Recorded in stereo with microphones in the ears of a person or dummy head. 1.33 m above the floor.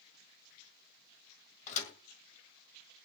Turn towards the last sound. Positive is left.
turn(degrees=45)  # may be behind; listen again after turning